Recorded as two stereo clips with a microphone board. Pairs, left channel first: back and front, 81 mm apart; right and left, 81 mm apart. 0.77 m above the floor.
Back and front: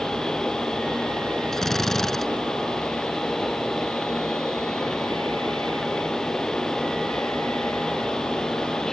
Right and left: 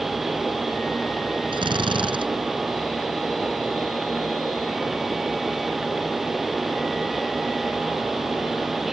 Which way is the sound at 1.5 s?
95° left.